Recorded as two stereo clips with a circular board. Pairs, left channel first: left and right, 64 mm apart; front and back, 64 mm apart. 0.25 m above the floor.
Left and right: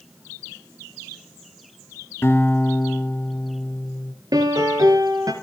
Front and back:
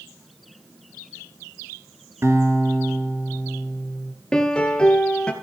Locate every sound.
2.2 s a guitar: 140° left, 1.9 m
4.3 s a piano: 75° right, 1.7 m